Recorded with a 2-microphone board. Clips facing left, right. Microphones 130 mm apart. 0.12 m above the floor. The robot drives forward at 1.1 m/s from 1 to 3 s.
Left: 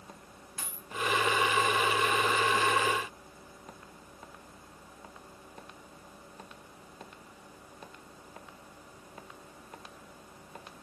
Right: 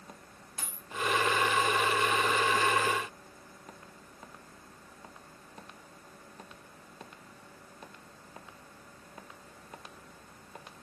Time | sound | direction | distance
0.6 | a dropped coin | 25° right (ahead or behind) | 8.5 m